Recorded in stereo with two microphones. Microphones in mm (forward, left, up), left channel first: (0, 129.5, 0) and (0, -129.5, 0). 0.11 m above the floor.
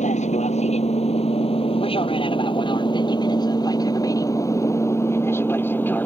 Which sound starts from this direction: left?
An aircraft, at 0.0 s.